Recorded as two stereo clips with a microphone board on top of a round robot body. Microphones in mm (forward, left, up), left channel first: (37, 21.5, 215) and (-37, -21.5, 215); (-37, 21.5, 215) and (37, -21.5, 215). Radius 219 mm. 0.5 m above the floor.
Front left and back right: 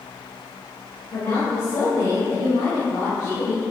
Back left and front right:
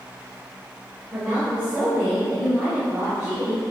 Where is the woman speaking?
25° left, 3.5 m.